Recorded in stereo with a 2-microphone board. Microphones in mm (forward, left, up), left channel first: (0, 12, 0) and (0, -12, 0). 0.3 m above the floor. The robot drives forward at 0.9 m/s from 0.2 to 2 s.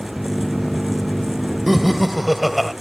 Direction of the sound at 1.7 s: 5° right (ahead or behind).